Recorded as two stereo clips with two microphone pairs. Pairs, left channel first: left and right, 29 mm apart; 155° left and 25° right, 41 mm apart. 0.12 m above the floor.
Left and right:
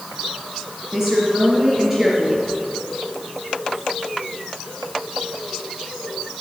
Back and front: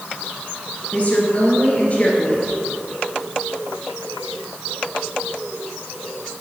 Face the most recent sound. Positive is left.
turn(degrees=-160)